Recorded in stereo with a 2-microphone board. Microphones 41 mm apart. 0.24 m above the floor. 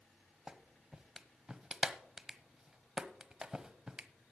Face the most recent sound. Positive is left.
turn(degrees=-15)  # may be behind; listen again after turning